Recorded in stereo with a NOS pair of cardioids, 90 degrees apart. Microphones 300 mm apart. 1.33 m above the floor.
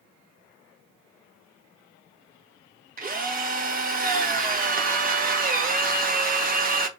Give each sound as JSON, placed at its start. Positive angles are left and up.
{"t": 3.0, "sound": "a drill", "azimuth_deg": -30, "distance_m": 1.1}